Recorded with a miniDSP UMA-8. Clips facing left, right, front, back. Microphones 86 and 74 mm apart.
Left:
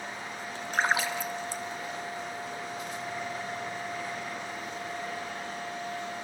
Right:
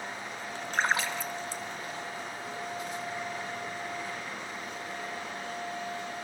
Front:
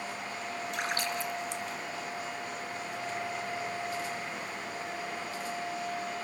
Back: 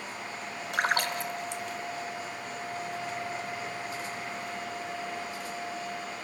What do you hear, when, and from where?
0.7 s a splash: 170° left, 0.6 m